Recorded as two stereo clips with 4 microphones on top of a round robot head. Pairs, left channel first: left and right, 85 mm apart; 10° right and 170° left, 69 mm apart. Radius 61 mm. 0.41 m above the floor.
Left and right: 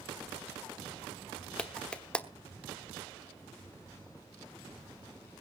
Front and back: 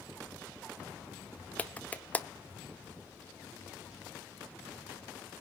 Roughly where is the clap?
Ahead left.